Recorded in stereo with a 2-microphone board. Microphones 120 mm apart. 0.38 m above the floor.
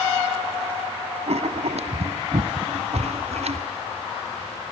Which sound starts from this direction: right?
Writing, at 1.3 s.